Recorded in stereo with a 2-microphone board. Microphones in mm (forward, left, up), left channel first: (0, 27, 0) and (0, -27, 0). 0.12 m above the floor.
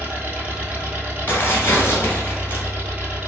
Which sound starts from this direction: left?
Tearing paper, at 1.3 s.